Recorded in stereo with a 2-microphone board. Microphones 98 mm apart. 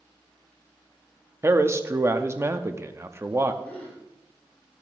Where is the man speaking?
25° right (ahead or behind), 0.6 m.